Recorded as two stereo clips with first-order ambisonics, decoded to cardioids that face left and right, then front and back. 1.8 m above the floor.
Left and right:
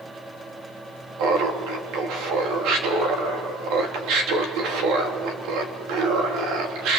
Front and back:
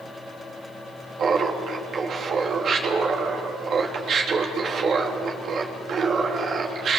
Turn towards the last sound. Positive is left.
turn(degrees=-120)